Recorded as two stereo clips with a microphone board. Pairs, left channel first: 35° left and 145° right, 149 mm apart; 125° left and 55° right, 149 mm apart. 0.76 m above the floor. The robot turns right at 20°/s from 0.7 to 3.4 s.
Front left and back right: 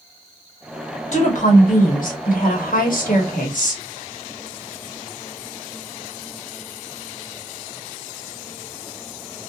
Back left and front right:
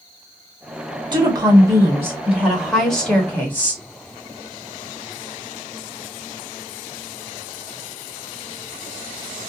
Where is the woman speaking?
Straight ahead, 1.1 m; by 3.8 s 50° left, 1.1 m.